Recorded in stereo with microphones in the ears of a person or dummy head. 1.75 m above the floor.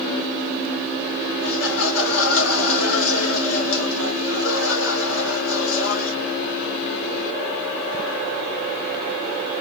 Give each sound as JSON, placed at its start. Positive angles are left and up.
{"t": 1.4, "sound": "laughter", "side_deg": 75, "distance_m": 3.0}